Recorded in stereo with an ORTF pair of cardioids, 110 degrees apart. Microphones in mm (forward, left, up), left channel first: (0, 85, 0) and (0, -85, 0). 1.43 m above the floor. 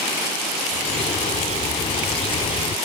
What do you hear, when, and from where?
0.7 s a bird: 35° left